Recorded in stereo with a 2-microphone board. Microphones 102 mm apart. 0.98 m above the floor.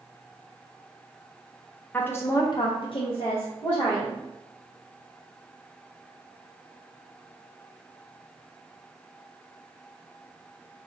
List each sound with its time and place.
1.9 s a woman speaking: 15° left (ahead or behind), 0.6 m; by 4.2 s 45° left (ahead or behind), 1.1 m